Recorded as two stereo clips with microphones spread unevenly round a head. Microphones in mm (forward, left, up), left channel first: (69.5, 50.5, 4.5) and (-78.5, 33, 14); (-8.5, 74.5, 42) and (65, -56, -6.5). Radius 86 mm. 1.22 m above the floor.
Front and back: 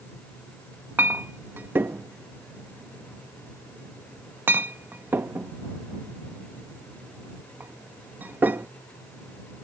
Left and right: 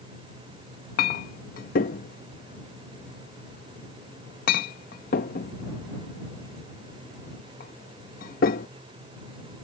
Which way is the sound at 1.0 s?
110° left.